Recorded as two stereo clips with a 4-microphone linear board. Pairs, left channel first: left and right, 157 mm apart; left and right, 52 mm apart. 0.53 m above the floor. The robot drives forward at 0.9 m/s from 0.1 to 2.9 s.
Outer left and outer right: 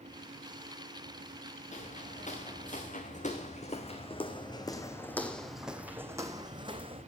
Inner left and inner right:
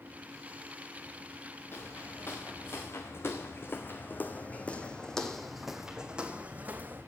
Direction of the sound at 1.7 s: 50° left (ahead or behind).